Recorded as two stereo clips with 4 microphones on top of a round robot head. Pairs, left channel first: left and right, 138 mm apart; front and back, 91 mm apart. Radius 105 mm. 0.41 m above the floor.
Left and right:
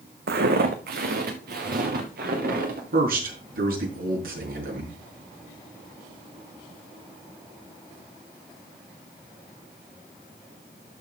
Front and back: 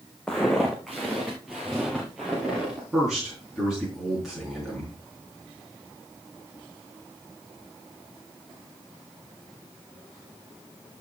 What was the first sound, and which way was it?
Footsteps, 85° right.